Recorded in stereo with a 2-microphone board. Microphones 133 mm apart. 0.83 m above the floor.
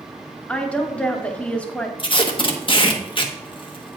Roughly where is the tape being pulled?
Left.